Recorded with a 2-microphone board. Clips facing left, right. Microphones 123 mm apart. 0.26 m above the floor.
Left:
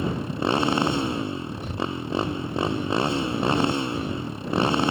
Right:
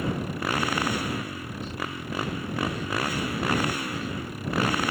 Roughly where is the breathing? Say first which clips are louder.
Left 5 dB; left.